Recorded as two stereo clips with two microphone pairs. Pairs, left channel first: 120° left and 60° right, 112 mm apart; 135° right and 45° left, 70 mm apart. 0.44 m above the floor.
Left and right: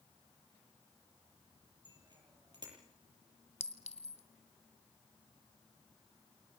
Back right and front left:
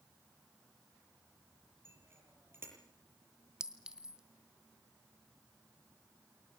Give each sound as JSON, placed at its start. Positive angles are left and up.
{"t": 1.9, "sound": "a bicycle bell", "azimuth_deg": -10, "distance_m": 9.0}
{"t": 3.6, "sound": "a clink", "azimuth_deg": 125, "distance_m": 1.9}